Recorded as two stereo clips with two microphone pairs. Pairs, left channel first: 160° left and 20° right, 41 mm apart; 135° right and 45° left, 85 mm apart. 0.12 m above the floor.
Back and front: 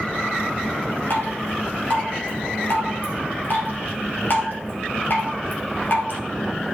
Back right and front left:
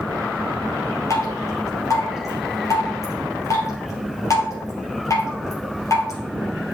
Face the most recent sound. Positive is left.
turn(degrees=180)